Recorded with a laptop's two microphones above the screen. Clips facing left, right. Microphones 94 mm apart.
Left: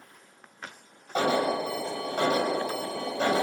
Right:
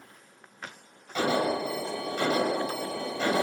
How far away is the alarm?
About 7.5 m.